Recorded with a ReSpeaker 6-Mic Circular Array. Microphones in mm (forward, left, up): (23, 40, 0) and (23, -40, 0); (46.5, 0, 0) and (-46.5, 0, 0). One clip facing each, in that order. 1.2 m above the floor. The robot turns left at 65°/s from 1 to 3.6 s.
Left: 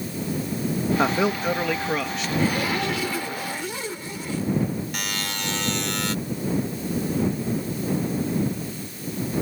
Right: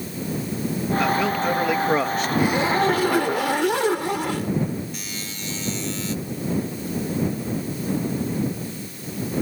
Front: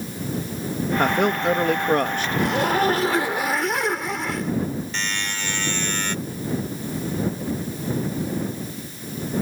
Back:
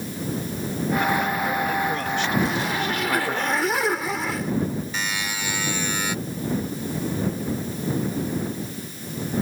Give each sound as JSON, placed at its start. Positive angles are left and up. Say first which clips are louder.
{"t": 1.0, "sound": "a man speaking", "louder": "right 2 dB, front 5 dB", "azimuth_deg": 35}
{"t": 2.4, "sound": "a zipper", "louder": "right 4 dB, front 4 dB", "azimuth_deg": -15}
{"t": 4.9, "sound": "a buzzer", "louder": "left 4 dB, even", "azimuth_deg": 100}